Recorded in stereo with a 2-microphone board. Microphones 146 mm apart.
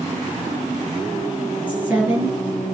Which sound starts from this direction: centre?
A woman speaking, at 1.7 s.